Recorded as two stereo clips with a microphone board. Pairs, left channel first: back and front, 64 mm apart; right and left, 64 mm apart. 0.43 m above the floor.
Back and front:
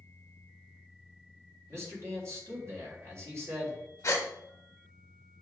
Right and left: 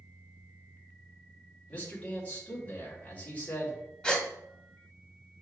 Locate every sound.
1.7 s a man speaking: 30° right, 1.9 m
4.0 s a gasp: 165° right, 0.9 m